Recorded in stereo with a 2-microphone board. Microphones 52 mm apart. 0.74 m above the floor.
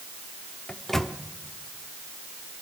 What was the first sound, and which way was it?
A microwave, 10° left (ahead or behind).